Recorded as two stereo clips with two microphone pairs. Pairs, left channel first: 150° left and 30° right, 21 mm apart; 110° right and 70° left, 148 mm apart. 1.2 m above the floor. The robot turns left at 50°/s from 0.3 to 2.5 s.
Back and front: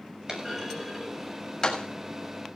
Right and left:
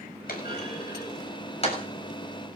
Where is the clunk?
90° right, 7 m; by 1.9 s 165° right, 7 m.